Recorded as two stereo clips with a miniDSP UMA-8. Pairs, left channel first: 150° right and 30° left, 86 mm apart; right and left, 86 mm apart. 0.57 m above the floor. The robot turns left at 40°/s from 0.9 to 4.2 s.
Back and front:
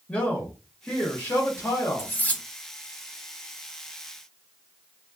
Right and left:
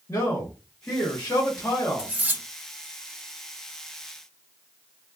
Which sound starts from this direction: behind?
Cutlery clinking, at 2.0 s.